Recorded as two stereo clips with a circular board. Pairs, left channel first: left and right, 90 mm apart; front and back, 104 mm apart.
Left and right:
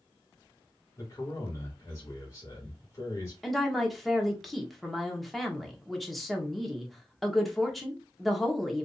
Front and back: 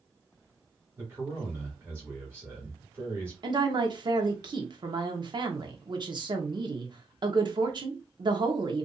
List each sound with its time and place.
1.0 s a man speaking: 120° left, 1.7 m
3.4 s a woman speaking: straight behind, 1.0 m